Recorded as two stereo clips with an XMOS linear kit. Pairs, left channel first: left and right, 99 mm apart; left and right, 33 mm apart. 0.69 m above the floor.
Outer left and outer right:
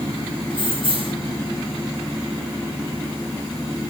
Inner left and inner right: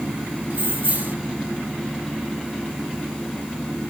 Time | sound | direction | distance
0.5 | keys jangling | 65° right (ahead or behind) | 1.5 m